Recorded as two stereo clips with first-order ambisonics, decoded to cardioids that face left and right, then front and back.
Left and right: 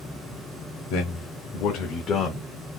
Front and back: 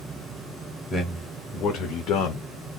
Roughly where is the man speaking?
Left.